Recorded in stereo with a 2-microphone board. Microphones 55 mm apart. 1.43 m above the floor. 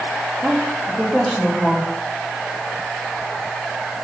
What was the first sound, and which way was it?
A woman speaking, 15° left (ahead or behind).